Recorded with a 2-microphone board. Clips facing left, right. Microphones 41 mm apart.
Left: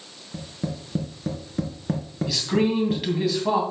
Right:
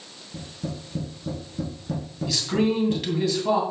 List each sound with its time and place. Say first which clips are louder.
0.3 s tapping: left 2 dB; 50° left (ahead or behind), 2.5 m
2.3 s a man speaking: left 1 dB; 10° left (ahead or behind), 2.5 m